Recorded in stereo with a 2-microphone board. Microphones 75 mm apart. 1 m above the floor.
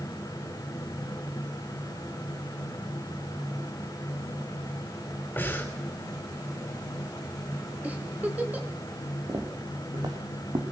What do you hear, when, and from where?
5.4 s breathing: 25° left (ahead or behind), 3.5 m
7.8 s a giggle: 20° right (ahead or behind), 2.5 m
9.3 s footsteps: 60° right (ahead or behind), 3 m; by 10.6 s 70° right (ahead or behind), 3.5 m